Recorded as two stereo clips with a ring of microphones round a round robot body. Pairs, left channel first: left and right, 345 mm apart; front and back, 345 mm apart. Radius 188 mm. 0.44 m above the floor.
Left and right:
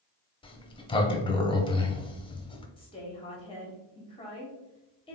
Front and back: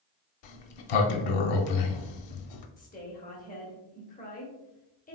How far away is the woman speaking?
About 0.9 m.